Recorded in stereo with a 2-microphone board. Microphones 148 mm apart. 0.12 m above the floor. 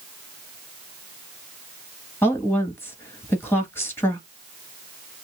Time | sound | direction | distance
2.2 | a woman speaking | 15° left (ahead or behind) | 1.8 m